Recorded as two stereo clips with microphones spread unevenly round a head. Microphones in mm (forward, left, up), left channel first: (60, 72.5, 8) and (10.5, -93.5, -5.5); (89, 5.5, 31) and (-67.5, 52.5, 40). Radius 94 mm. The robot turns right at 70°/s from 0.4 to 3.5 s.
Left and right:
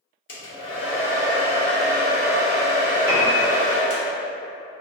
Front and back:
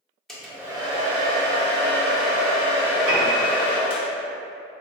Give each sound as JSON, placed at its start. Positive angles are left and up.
{"t": 0.3, "sound": "a hair dryer", "azimuth_deg": 70, "distance_m": 0.7}
{"t": 3.1, "sound": "a piano", "azimuth_deg": 175, "distance_m": 0.9}